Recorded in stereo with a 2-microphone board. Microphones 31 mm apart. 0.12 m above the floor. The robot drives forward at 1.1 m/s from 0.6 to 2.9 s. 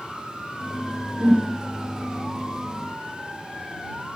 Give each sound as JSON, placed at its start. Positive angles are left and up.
{"t": 1.2, "sound": "a whoosh", "side_deg": -60, "distance_m": 3.5}